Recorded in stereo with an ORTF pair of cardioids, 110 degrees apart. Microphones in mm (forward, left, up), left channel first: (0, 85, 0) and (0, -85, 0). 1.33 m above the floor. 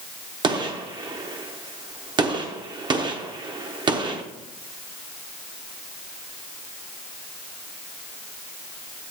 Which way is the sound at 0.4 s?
30° right.